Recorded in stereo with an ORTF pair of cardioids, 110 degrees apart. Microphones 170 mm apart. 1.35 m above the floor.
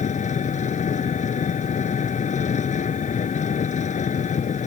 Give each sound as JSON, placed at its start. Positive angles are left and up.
{"t": 0.0, "sound": "an engine running", "azimuth_deg": 45}